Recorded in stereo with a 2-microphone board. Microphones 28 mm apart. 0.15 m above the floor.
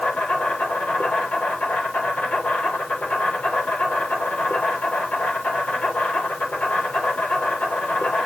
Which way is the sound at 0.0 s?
65° left (ahead or behind).